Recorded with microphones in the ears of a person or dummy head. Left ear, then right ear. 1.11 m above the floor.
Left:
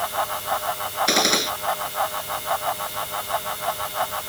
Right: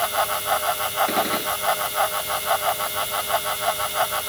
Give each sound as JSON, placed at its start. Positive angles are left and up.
{"t": 0.0, "sound": "a fan", "side_deg": -25}
{"t": 1.1, "sound": "a gunshot", "side_deg": 85}